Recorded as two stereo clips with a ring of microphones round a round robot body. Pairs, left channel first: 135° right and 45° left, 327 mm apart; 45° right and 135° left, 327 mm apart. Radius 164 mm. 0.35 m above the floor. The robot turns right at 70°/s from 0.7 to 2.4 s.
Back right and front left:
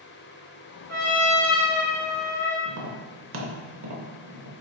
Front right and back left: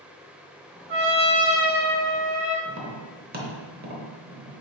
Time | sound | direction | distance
0.9 | a trumpet | straight behind | 1.7 m
2.6 | tapping | 80° left | 0.8 m